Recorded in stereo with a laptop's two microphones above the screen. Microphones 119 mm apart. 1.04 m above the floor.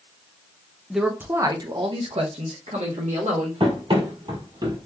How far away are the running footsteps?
About 1.7 m.